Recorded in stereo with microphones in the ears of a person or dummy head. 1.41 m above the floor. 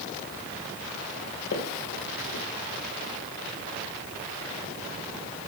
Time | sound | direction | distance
1.5 | footsteps | 45° left (ahead or behind) | 2 m